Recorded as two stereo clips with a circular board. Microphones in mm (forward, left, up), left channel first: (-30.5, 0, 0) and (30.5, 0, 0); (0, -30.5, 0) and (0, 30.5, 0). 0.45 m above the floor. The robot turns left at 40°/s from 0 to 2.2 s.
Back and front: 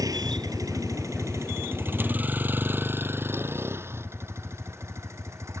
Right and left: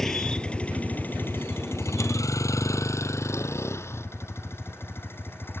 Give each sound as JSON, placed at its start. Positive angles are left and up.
{"t": 0.0, "sound": "a vehicle", "azimuth_deg": -5}